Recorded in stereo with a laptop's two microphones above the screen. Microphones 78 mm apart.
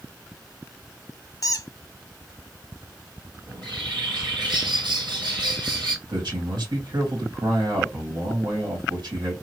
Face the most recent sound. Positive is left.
turn(degrees=-70)  # may be behind; listen again after turning